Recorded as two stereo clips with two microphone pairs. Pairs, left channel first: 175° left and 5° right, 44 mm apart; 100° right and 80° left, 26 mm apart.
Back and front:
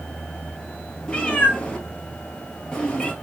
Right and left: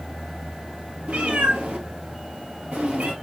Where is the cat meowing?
105° left, 1.2 m.